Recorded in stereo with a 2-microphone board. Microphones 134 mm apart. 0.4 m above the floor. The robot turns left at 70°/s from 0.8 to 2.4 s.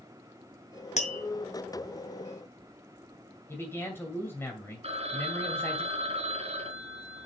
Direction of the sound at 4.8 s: 50° right (ahead or behind).